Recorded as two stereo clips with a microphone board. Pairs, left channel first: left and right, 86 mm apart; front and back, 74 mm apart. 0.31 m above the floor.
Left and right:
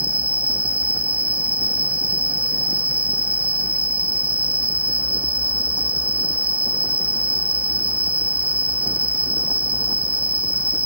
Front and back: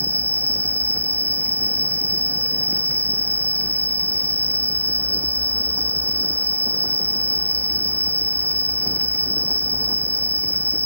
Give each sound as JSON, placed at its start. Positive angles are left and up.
{"t": 0.0, "sound": "an insect", "azimuth_deg": 50}